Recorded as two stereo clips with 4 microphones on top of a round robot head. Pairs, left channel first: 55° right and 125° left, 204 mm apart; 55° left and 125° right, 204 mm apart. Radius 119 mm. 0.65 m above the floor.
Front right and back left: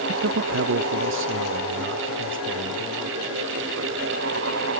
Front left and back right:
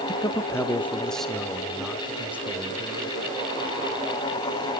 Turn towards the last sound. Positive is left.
turn(degrees=155)